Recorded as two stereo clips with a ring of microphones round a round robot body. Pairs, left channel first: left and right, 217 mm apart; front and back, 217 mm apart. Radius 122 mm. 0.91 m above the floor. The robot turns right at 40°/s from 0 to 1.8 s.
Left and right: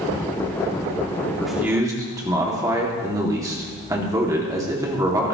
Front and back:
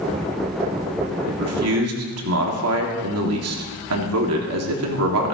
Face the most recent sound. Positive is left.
turn(degrees=-165)